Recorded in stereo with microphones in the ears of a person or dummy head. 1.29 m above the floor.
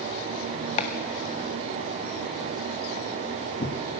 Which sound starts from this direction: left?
Chopping, at 0.8 s.